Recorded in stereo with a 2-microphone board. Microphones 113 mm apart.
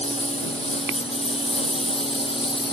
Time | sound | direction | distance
0.0 | a lawn mower | 70° left (ahead or behind) | ?